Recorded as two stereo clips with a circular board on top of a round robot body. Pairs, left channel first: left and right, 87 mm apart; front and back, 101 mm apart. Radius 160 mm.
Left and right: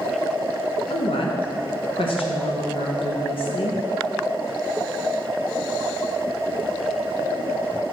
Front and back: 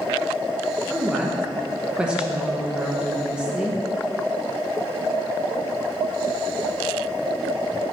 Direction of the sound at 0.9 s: 100° left.